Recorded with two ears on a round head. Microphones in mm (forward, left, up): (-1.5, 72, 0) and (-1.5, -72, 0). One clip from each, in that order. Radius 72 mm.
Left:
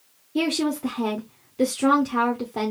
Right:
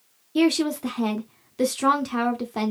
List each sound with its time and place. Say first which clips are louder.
0.3 s a woman speaking: right 3 dB; 35° right (ahead or behind), 0.8 m